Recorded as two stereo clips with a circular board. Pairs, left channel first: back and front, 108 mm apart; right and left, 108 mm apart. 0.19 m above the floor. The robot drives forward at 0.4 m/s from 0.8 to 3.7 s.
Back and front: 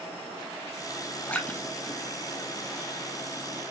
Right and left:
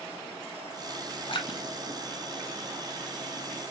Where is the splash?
105° right, 1.3 m; by 3.1 s 135° right, 1.6 m.